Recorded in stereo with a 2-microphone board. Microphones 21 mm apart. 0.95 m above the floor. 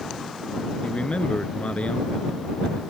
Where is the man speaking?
65° left (ahead or behind); by 2.9 s 70° left (ahead or behind).